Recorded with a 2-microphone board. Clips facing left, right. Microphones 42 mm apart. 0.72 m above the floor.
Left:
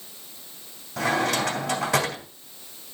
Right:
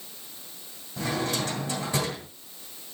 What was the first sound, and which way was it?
A drawer, 85° left.